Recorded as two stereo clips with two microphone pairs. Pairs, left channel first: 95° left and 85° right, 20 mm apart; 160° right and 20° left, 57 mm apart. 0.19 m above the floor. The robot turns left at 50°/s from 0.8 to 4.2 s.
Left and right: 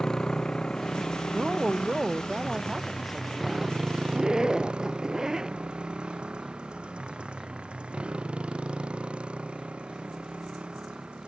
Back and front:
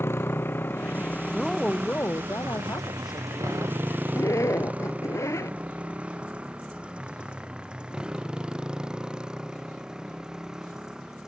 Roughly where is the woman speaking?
Right.